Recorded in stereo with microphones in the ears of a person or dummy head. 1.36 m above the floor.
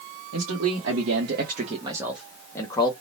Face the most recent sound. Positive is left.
turn(degrees=20)  # may be behind; listen again after turning